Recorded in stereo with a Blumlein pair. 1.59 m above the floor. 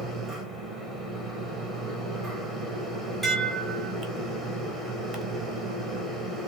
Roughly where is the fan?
Ahead.